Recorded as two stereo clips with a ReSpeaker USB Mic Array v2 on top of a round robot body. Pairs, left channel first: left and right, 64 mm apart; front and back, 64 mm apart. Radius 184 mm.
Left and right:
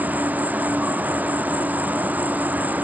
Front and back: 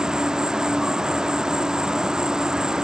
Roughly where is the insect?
Right.